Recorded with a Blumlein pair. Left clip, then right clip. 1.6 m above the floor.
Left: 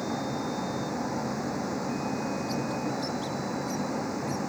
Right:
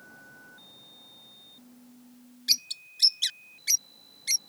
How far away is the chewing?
I don't hear chewing.